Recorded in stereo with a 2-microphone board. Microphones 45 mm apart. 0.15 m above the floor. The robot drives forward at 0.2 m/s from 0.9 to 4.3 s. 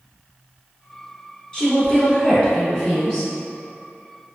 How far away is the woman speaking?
About 1.2 m.